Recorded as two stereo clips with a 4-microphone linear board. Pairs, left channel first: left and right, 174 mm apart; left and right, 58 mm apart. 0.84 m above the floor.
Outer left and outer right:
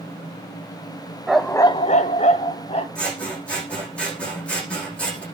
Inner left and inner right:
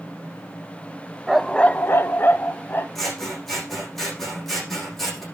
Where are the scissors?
5° left (ahead or behind), 7.5 m.